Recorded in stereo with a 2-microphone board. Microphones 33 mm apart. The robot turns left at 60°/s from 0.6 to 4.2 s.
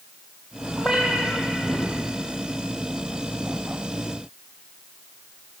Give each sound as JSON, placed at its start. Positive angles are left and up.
{"t": 0.8, "sound": "a cat meowing", "azimuth_deg": -20, "distance_m": 3.5}